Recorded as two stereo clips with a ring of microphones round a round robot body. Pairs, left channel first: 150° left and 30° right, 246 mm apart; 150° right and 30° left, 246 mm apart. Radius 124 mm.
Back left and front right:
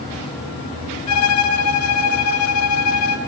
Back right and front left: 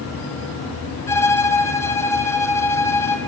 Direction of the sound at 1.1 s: 130° left.